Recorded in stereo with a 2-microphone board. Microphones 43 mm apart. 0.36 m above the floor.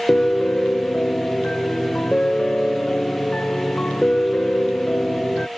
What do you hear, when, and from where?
0.1 s a piano: 30° left (ahead or behind)